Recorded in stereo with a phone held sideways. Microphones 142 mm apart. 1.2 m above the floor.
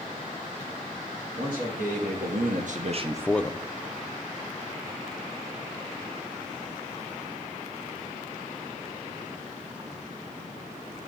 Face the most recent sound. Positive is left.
turn(degrees=40)  # may be behind; listen again after turning